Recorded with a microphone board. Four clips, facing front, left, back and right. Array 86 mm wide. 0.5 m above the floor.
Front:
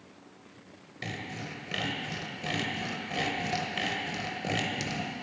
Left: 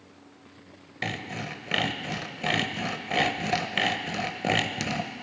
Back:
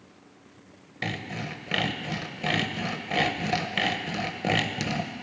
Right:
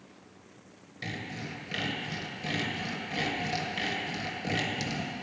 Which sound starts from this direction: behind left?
Sawing, at 1.0 s.